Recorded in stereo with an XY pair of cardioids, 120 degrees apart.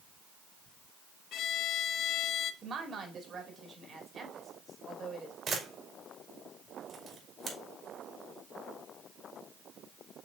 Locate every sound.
1.3 s a violin: 70° left, 0.5 m
2.6 s a woman speaking: 40° right, 2 m
5.5 s a camera shutter: 45° right, 2 m